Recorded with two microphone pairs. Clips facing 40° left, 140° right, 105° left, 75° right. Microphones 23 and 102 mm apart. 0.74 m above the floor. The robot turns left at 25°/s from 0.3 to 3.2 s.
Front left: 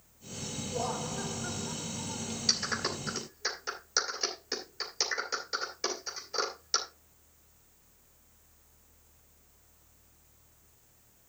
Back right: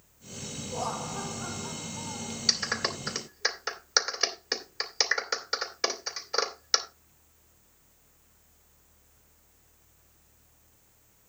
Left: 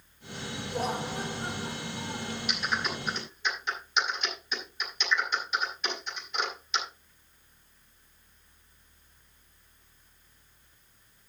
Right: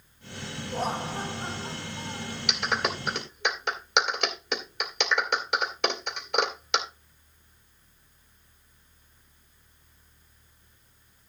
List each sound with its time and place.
0.7 s laughter: 120° right, 8.5 m; by 2.4 s 165° right, 8.5 m
2.5 s a clap: 70° right, 2.5 m; by 6.9 s 85° right, 2.5 m